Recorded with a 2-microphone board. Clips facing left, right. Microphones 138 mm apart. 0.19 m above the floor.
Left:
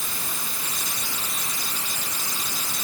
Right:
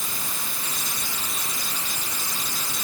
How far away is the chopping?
I don't hear chopping.